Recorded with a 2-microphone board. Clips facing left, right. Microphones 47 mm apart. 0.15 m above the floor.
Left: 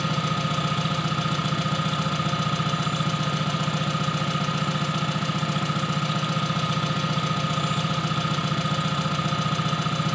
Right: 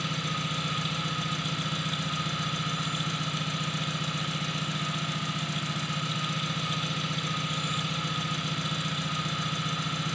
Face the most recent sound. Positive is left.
turn(degrees=70)  # may be behind; listen again after turning